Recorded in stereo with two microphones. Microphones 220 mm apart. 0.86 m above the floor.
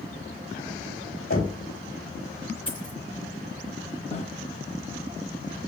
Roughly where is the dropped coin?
Left.